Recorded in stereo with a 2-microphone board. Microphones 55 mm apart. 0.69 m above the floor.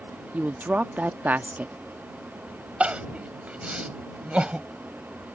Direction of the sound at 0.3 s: 30° right (ahead or behind).